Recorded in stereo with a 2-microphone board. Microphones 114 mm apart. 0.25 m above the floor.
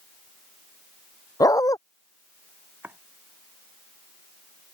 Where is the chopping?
20° right (ahead or behind).